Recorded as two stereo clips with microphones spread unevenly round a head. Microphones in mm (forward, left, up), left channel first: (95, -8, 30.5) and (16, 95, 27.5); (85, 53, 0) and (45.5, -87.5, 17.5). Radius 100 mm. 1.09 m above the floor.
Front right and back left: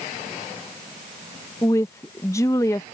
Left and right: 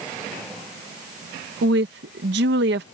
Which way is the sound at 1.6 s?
125° right.